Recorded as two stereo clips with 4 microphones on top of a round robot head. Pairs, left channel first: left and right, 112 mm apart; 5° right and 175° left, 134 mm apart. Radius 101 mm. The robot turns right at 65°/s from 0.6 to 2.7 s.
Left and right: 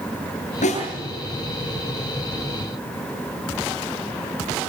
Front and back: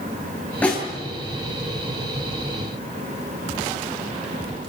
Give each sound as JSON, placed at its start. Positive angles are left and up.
{"t": 0.6, "sound": "a snare drum", "azimuth_deg": 75, "distance_m": 9.0}